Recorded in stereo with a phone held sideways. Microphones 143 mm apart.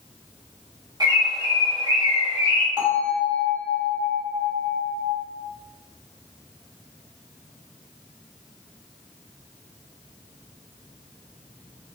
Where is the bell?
30° right (ahead or behind), 1.6 m.